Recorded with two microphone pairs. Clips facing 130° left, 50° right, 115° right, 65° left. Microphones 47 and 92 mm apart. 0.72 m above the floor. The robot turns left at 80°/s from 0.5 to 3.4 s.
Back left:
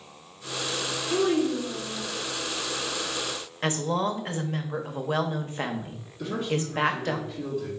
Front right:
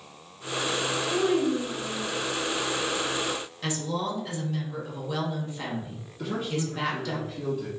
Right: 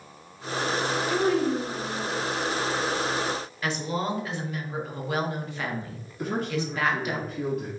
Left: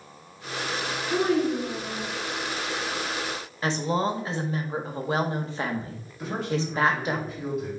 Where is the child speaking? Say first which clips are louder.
Back left 1 dB, left 2 dB; 140° left, 1.2 m; by 2.1 s 60° left, 1.2 m.